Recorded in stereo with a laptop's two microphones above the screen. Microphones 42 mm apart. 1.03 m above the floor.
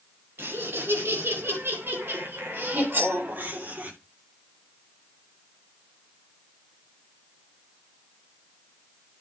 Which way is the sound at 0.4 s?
80° right.